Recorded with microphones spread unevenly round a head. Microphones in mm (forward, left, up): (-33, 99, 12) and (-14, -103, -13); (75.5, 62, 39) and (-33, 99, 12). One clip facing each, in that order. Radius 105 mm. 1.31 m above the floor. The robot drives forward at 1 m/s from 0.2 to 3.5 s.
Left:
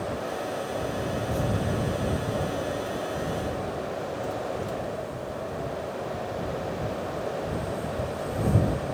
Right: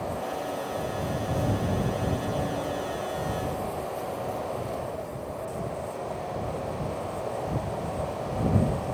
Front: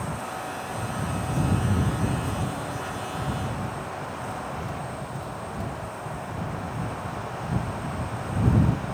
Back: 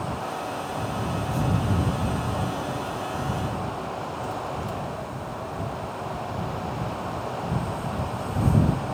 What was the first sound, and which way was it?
Only background noise.